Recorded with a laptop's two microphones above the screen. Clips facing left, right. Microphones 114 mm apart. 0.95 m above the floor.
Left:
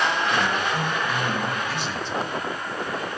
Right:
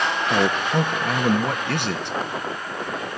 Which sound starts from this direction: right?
A man speaking, at 0.3 s.